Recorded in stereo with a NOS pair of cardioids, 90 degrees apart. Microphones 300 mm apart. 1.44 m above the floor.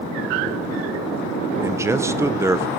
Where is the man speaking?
10° right, 1.4 m.